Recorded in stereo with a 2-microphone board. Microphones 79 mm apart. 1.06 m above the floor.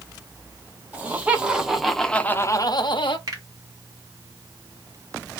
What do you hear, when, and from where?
0.9 s laughter: 20° right (ahead or behind), 1.6 m; by 3.2 s 80° left, 0.8 m
3.3 s a finger snap: 45° right (ahead or behind), 1.4 m